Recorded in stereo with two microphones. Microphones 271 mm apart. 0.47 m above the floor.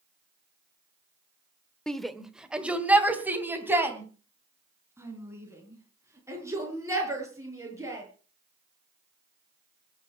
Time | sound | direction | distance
1.9 | a shout | 5° left (ahead or behind) | 1.1 m